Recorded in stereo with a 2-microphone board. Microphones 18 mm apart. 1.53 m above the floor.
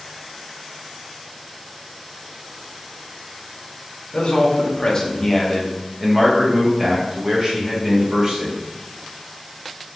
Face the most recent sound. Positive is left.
turn(degrees=-35)  # may be behind; listen again after turning